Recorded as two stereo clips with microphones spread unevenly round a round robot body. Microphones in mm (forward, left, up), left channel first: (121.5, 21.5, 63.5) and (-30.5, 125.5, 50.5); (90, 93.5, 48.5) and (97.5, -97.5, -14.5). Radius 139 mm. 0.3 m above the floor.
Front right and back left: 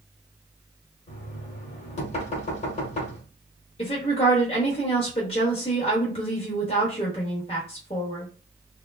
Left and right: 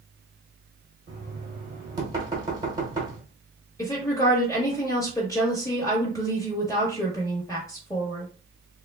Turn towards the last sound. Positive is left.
turn(degrees=5)